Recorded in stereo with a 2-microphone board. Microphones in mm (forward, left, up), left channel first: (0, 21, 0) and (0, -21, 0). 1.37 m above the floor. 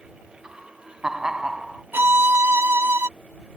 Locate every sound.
0.4 s laughter: 15° right (ahead or behind)
1.9 s a violin: 65° right (ahead or behind)